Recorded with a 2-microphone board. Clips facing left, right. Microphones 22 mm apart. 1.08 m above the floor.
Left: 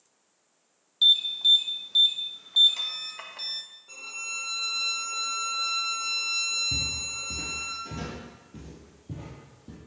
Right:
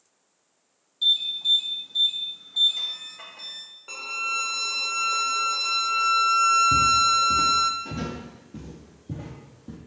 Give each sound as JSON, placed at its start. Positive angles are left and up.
{"t": 1.0, "sound": "an alarm", "side_deg": 45, "distance_m": 1.1}
{"t": 3.9, "sound": "a violin", "side_deg": -75, "distance_m": 0.7}
{"t": 6.7, "sound": "footsteps", "side_deg": -20, "distance_m": 1.2}